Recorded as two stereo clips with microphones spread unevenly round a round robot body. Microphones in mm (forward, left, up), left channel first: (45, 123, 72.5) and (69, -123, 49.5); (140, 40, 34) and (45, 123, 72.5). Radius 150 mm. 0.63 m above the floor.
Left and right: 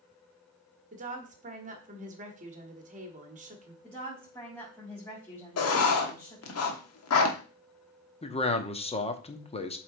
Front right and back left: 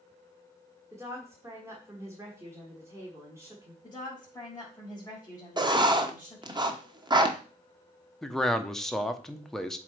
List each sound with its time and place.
0.9 s a woman speaking: 140° right, 1.2 m
3.8 s a woman speaking: 15° left, 4 m
5.6 s writing: 75° left, 1.2 m
8.2 s a man speaking: 30° left, 1.0 m